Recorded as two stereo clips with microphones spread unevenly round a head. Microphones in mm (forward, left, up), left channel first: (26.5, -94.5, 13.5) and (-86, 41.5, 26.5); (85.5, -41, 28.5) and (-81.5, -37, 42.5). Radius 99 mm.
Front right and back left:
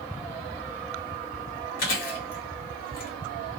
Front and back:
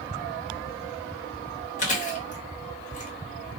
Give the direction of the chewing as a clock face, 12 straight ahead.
1 o'clock.